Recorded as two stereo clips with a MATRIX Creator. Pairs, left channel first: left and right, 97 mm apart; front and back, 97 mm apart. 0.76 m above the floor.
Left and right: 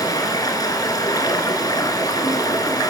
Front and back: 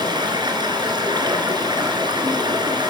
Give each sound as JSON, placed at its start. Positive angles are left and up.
{"t": 0.0, "sound": "running water", "azimuth_deg": 140, "distance_m": 3.0}